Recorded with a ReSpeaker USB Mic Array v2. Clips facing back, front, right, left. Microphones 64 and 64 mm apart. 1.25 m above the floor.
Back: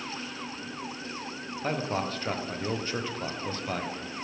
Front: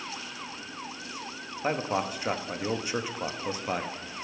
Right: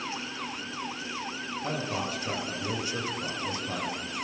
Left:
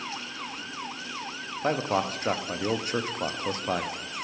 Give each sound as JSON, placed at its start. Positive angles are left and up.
{"t": 1.6, "sound": "a man speaking", "azimuth_deg": 70, "distance_m": 0.5}